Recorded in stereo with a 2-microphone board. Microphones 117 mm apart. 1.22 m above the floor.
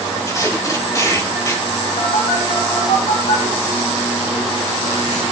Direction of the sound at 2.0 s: 85° left.